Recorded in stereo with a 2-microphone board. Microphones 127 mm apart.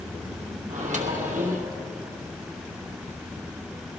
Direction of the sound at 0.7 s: 70° right (ahead or behind).